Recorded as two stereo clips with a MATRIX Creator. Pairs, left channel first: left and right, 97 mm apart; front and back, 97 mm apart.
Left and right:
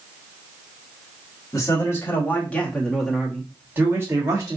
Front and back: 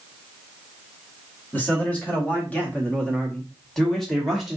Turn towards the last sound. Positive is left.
turn(degrees=-95)